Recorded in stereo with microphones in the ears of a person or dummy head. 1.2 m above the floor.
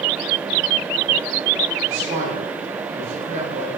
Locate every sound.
1.9 s a man speaking: 35° right (ahead or behind), 1.8 m